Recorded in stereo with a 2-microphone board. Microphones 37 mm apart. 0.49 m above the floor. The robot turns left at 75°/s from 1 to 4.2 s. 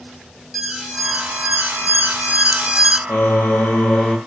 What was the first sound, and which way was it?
An alarm, 10° right.